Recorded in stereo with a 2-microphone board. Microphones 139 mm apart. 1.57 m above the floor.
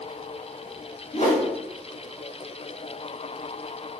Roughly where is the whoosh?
Left.